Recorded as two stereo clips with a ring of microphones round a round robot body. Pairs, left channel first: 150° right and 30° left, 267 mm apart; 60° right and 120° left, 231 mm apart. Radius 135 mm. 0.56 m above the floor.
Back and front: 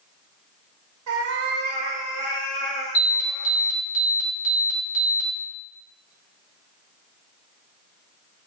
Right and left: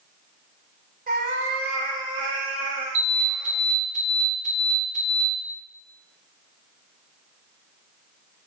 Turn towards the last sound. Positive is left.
turn(degrees=175)